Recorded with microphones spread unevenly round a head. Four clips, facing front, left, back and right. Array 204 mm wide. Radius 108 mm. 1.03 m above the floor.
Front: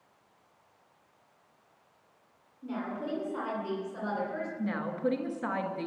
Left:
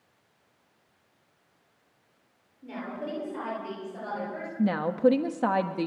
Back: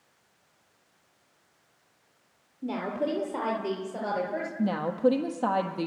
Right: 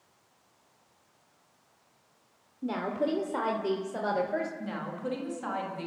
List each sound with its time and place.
2.6 s a woman speaking: 135° right, 3.5 m; by 4.5 s 120° right, 5 m
4.6 s a woman speaking: 120° left, 1.9 m